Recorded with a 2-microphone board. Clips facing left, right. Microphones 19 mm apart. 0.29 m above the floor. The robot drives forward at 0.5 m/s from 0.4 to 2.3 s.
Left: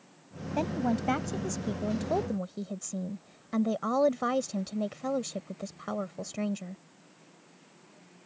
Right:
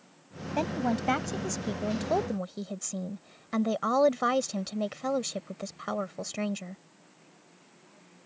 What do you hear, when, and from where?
0.6 s a woman speaking: 20° right (ahead or behind); by 6.8 s 25° right (ahead or behind)